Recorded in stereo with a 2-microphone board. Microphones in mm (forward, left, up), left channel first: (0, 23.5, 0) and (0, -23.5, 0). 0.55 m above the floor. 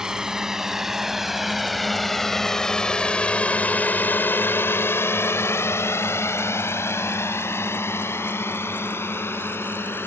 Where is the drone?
10° right (ahead or behind); by 10.1 s 55° left (ahead or behind).